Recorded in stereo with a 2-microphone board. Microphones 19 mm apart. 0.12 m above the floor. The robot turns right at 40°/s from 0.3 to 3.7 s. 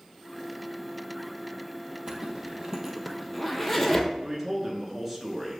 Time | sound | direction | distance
2.1 | a zipper | 55° right (ahead or behind) | 0.7 m
4.2 | a man speaking | 15° right (ahead or behind) | 1.1 m